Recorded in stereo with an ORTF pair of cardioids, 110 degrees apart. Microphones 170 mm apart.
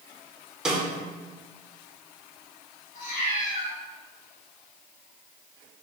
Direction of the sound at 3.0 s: 50° left.